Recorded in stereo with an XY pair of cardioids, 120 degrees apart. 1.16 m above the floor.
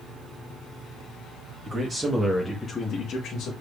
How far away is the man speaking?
About 1.5 m.